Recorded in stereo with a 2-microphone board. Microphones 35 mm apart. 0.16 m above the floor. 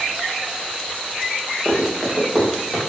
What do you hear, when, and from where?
1.6 s running footsteps: 20° right (ahead or behind), 3 m; by 2.8 s 10° right (ahead or behind), 4 m